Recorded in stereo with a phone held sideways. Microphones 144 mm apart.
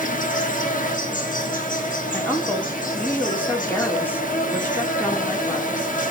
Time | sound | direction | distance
0.0 | an insect | 70° left (ahead or behind) | 1.7 m
2.1 | a woman speaking | 15° left (ahead or behind) | 3 m